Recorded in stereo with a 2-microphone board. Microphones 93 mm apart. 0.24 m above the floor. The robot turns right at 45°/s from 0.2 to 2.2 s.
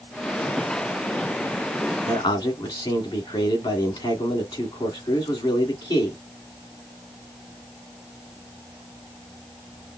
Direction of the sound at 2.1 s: 60° left (ahead or behind).